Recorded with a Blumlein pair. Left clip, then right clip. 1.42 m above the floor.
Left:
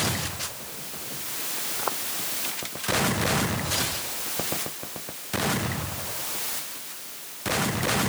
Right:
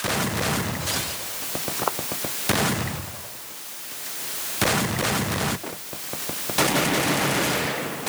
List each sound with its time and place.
1.8 s footsteps: 10° right